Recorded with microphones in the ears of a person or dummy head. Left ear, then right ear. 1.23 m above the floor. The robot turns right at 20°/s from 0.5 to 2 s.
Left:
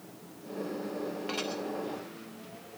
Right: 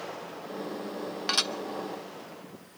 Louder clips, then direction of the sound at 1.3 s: Right 10 dB; 50° right (ahead or behind).